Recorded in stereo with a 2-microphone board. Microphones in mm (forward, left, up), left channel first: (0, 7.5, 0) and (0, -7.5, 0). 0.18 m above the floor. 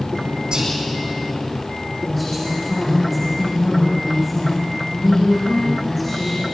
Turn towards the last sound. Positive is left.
turn(degrees=5)  # may be behind; listen again after turning